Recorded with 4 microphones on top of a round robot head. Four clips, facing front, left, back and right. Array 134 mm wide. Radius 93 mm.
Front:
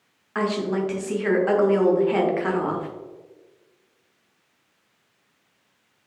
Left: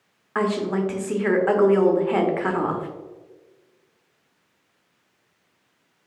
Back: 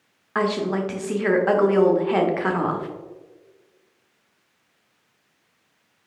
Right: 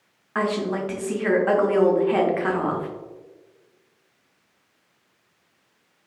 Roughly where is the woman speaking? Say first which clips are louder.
Left 1 dB, back 1 dB; behind left.